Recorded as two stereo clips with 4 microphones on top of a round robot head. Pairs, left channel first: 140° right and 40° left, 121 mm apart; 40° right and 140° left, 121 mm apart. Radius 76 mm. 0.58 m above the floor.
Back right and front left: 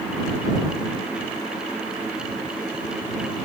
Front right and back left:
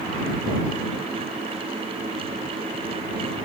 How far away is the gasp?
I don't hear a gasp.